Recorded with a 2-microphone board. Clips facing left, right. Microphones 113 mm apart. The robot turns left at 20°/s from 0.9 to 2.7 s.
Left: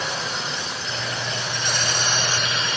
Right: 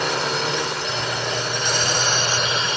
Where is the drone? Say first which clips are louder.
Right 6 dB; 105° right; by 2.8 s 145° right.